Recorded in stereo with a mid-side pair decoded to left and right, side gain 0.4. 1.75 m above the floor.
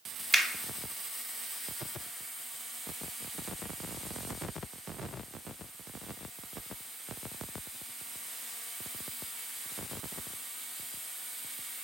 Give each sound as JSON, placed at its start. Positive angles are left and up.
{"t": 0.3, "sound": "a finger snap", "azimuth_deg": -25, "distance_m": 0.8}